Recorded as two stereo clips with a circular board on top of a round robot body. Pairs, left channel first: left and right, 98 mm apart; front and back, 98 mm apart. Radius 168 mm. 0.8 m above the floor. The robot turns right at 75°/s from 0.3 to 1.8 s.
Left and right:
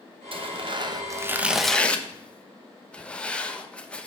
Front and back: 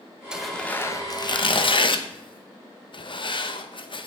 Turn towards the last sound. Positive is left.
turn(degrees=15)